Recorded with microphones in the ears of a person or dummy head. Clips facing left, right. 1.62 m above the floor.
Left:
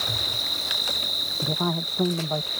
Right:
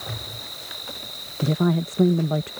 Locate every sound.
0.0 s an insect: 70° left (ahead or behind)
1.4 s a woman speaking: 30° right (ahead or behind)